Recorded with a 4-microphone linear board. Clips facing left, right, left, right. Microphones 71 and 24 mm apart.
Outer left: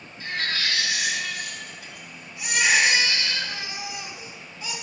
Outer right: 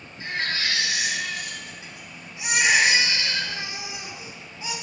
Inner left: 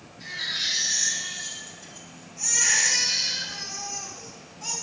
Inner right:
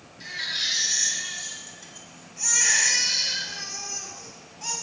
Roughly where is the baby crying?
Right.